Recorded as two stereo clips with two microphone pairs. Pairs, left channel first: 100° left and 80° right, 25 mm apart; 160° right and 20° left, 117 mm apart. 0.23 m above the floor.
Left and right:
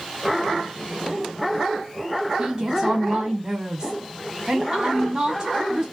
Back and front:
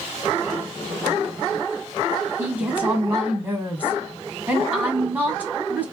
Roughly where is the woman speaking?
Ahead right.